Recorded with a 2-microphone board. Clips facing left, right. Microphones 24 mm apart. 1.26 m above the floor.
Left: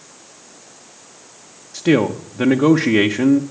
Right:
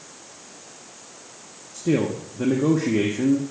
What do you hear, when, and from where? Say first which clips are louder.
1.7 s a man speaking: left 6 dB; 70° left (ahead or behind), 1.0 m